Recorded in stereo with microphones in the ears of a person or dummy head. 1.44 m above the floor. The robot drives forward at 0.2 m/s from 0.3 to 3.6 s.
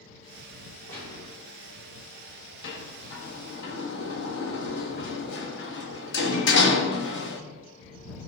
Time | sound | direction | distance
0.9 | a gunshot | 10° left (ahead or behind) | 4.5 m
2.6 | a sliding door | 65° left (ahead or behind) | 1.3 m